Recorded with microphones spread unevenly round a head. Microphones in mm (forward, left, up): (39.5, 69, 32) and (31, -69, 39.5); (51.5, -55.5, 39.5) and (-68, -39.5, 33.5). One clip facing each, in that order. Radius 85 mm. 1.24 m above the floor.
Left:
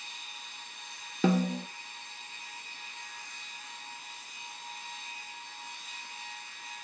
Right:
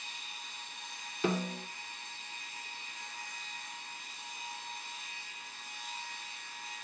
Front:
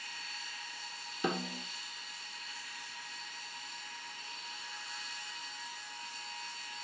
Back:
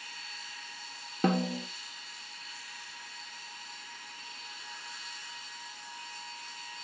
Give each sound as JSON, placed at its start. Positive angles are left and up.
{"t": 1.2, "sound": "a snare drum", "azimuth_deg": 115, "distance_m": 1.6}